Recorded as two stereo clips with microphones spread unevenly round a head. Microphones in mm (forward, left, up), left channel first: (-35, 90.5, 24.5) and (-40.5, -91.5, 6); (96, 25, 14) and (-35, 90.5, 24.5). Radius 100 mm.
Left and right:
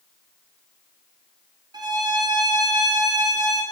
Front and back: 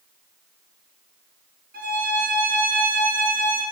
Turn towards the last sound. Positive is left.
turn(degrees=-160)